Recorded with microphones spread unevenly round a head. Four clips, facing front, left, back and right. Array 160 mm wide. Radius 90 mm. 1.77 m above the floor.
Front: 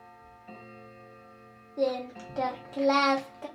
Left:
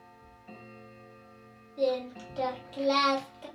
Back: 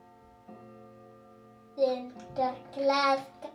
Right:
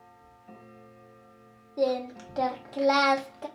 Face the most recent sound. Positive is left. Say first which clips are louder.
# right 2 dB, back 1 dB
turn(degrees=-70)